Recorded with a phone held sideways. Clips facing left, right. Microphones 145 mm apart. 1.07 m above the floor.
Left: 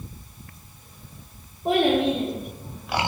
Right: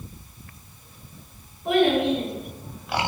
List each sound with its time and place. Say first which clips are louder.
1.6 s a child speaking: even; 30° left (ahead or behind), 1.9 m; by 3.1 s 10° left (ahead or behind), 1.5 m